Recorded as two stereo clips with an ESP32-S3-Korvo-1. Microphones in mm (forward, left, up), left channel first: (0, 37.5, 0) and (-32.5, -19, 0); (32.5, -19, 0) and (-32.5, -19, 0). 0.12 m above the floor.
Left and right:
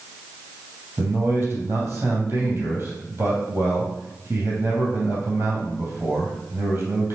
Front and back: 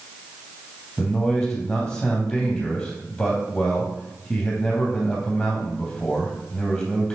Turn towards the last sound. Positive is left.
turn(degrees=-80)